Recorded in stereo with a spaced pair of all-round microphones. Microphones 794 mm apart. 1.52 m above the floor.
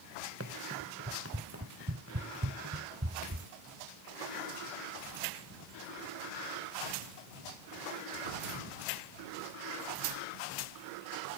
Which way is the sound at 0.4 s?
15° right (ahead or behind).